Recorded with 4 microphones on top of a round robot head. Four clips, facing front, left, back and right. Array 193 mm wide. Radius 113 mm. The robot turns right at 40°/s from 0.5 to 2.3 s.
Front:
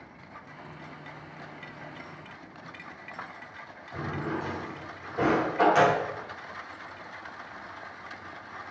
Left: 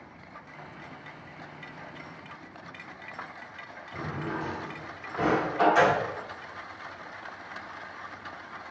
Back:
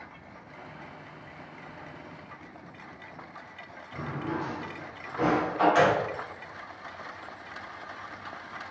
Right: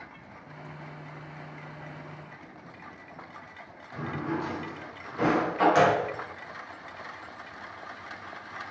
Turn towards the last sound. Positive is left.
turn(degrees=-60)